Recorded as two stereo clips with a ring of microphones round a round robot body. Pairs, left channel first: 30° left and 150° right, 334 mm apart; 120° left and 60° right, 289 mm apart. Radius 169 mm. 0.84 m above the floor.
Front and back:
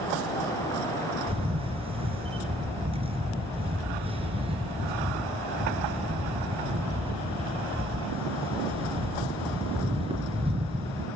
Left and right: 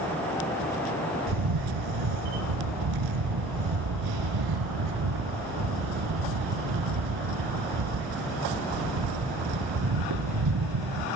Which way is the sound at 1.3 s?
75° right.